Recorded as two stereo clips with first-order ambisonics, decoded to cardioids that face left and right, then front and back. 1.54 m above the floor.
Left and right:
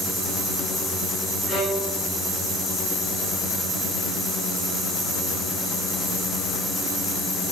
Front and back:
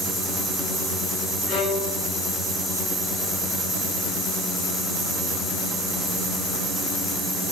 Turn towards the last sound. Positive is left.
turn(degrees=25)